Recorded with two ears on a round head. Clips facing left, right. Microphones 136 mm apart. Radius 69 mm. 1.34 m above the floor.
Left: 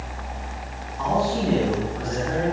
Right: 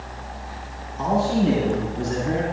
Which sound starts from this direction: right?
A man speaking, at 1.0 s.